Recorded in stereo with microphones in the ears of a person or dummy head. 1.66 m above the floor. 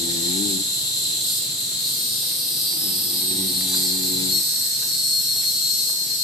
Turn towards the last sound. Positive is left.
turn(degrees=0)  # may be behind; listen again after turning